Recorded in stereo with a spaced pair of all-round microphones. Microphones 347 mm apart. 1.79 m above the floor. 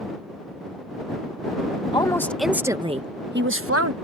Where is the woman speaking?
15° left (ahead or behind); by 3.9 s 45° right (ahead or behind).